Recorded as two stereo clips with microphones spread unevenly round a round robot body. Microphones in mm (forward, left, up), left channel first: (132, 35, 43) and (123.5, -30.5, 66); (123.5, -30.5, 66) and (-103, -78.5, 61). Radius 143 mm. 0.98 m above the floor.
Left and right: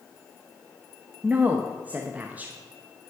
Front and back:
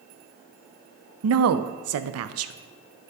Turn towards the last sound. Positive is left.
turn(degrees=180)